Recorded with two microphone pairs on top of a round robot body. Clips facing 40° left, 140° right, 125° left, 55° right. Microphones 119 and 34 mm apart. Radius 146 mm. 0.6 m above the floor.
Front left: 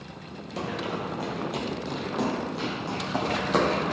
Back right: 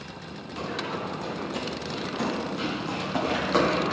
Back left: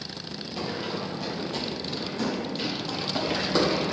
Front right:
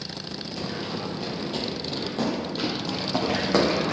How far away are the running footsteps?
About 1.0 m.